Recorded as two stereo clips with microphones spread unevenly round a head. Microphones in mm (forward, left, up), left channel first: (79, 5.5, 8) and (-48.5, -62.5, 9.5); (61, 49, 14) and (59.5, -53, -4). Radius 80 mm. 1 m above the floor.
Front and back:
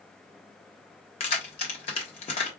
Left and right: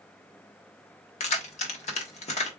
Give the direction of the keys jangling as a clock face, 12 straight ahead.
9 o'clock.